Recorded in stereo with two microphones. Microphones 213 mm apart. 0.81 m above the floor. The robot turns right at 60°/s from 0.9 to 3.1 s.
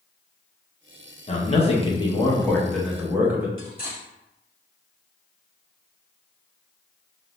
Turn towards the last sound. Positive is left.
turn(degrees=40)  # may be behind; listen again after turning